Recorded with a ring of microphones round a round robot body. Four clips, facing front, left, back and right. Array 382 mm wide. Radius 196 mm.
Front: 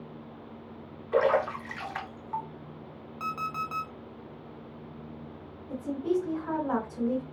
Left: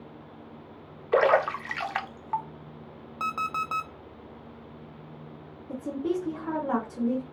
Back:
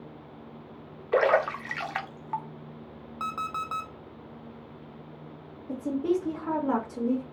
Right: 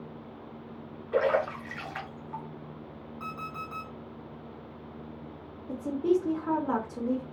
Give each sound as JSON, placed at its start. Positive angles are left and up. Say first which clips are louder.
{"t": 1.1, "sound": "a splash", "louder": "left 4 dB, back 2 dB", "azimuth_deg": 125, "distance_m": 0.7}
{"t": 3.2, "sound": "an alarm clock", "louder": "left 9 dB, back 1 dB", "azimuth_deg": 100, "distance_m": 0.5}
{"t": 5.7, "sound": "a woman speaking", "louder": "right 3 dB, back 2 dB", "azimuth_deg": -135, "distance_m": 1.4}